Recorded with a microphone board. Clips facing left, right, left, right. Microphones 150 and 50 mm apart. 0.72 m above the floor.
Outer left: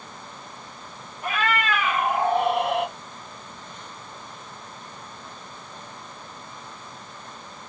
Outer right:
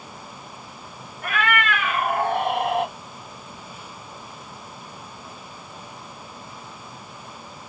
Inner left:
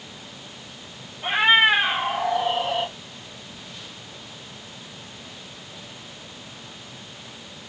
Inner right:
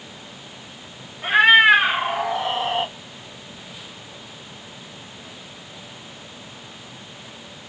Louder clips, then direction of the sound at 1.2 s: Outer right 1 dB, inner right 5 dB; 70° right (ahead or behind).